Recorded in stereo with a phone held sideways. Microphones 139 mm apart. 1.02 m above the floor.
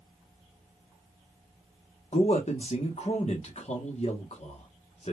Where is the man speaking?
55° left (ahead or behind), 0.9 m.